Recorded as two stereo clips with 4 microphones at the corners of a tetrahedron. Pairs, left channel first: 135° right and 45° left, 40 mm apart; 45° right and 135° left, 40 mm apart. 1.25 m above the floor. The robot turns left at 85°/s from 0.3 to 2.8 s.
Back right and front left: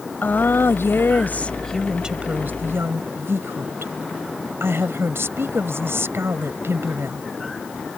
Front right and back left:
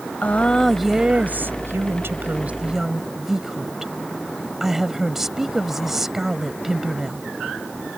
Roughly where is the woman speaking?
Right.